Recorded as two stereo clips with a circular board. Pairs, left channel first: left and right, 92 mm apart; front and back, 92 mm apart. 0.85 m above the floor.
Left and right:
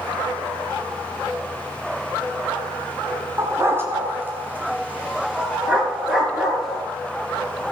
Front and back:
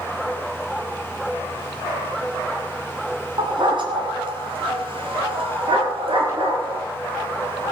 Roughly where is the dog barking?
Behind right.